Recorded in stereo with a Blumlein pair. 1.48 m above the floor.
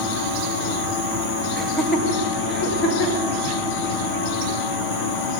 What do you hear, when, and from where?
1.6 s laughter: 5° left, 1.5 m; by 3.3 s 40° left, 2.5 m